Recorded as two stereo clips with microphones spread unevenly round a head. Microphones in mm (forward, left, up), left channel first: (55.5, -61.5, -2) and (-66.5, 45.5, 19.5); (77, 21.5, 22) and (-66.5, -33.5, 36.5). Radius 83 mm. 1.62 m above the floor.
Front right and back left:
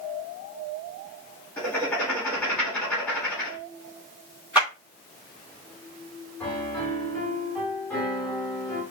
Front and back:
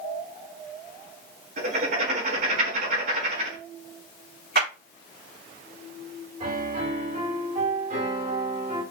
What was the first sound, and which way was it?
Writing, 125° right.